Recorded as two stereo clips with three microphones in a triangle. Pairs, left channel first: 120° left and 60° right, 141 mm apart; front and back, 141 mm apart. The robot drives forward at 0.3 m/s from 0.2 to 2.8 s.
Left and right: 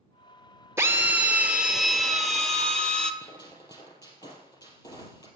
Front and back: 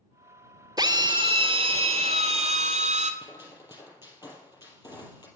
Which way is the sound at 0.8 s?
130° right.